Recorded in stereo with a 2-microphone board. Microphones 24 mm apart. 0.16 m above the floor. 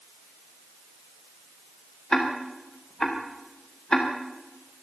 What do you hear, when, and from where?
2.1 s ticking: 30° left (ahead or behind), 5 m